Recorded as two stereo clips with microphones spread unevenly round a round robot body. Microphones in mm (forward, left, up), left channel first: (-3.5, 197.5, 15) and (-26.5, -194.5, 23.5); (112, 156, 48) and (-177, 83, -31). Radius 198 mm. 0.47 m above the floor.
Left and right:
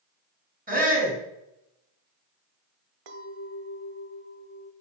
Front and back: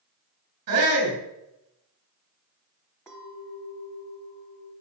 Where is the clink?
75° right, 1.3 m.